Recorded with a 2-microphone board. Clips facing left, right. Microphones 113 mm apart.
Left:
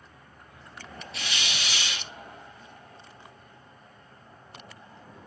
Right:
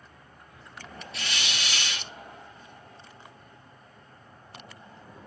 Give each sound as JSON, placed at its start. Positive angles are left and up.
{"t": 1.1, "sound": "a hiss", "side_deg": 0, "distance_m": 0.6}